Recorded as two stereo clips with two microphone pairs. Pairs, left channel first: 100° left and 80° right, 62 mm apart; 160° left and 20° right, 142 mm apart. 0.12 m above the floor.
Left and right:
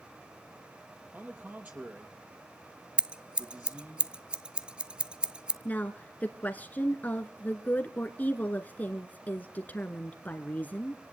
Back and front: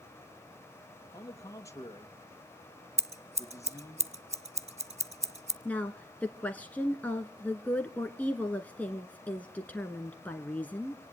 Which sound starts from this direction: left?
A woman speaking, at 5.7 s.